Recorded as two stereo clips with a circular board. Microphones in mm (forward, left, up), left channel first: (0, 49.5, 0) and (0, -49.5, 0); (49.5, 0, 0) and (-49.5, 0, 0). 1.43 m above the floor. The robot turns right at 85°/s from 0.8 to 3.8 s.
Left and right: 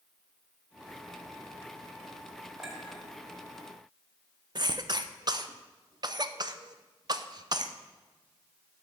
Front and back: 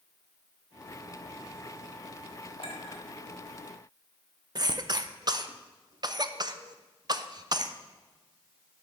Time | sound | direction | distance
2.6 | a clink | 5° right | 1.8 m
4.5 | a cough | 135° right | 0.6 m